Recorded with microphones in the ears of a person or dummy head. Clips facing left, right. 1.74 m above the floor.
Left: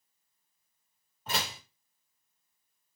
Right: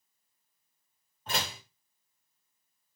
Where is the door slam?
5° left (ahead or behind), 1.4 m.